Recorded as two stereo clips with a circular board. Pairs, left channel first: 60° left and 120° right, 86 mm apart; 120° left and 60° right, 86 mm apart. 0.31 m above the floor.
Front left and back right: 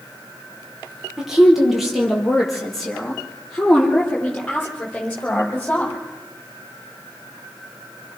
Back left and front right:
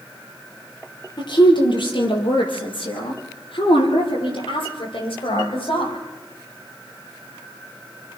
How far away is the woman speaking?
About 8 m.